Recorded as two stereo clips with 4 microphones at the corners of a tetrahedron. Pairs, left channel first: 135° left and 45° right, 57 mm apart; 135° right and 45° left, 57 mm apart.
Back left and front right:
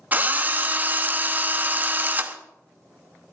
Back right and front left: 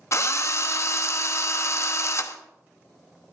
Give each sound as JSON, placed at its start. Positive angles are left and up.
{"t": 0.1, "sound": "a drill", "azimuth_deg": -105, "distance_m": 0.9}